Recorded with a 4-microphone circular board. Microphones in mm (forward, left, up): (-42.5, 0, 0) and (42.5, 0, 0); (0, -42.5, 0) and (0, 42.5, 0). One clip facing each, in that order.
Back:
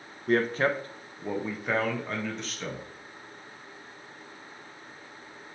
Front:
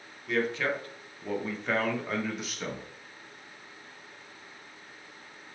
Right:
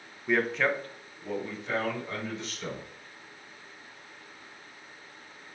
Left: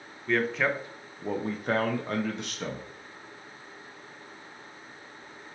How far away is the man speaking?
About 0.7 m.